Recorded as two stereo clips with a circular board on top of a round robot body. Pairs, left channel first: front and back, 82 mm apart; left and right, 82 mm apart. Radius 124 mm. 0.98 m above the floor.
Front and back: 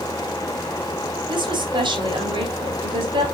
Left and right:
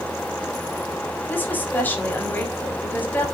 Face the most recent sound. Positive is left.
turn(degrees=160)